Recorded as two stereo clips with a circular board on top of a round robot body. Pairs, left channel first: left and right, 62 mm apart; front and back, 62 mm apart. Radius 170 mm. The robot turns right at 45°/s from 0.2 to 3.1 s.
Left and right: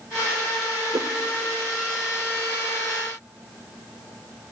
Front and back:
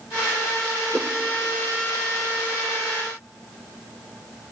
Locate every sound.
0.9 s a whoosh: 105° right, 1.0 m; by 1.1 s 95° right, 1.0 m